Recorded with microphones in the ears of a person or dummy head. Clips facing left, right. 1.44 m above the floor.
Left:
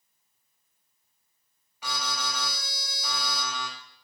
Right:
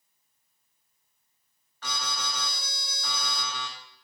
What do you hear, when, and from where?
1.8 s an alarm: 15° left (ahead or behind), 6.5 m